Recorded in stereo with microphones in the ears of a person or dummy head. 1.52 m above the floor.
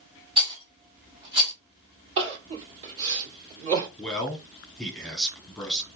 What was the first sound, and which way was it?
A rattle, 15° right (ahead or behind).